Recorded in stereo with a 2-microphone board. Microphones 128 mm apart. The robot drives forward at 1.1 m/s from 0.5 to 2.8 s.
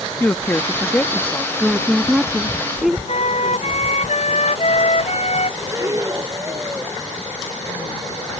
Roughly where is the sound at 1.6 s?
Centre.